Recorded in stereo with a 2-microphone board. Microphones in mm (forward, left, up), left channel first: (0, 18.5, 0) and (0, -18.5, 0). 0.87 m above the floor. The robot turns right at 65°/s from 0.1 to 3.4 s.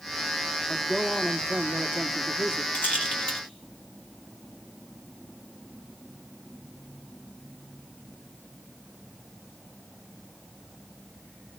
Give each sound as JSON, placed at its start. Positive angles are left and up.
{"t": 0.7, "sound": "a man speaking", "azimuth_deg": 165, "distance_m": 1.3}
{"t": 2.7, "sound": "a rattle", "side_deg": 55, "distance_m": 2.5}